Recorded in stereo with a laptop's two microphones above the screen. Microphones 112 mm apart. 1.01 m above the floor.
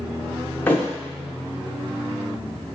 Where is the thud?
15° left (ahead or behind), 0.6 m.